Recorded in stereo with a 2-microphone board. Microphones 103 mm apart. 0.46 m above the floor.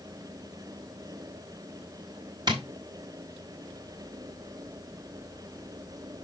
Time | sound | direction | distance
2.5 | tapping | 45° right (ahead or behind) | 1.8 m